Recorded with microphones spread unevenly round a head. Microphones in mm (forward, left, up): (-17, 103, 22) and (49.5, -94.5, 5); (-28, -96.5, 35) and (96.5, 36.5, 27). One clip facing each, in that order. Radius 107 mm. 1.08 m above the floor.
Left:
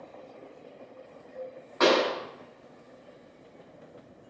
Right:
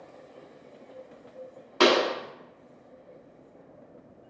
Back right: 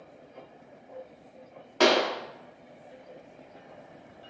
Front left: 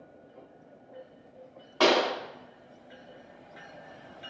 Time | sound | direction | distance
1.8 | a pop | 80° right | 0.5 m